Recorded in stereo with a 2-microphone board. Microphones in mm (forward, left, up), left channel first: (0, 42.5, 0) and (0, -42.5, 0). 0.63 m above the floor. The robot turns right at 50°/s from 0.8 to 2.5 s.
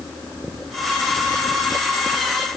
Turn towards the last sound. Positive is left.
No sound to turn to.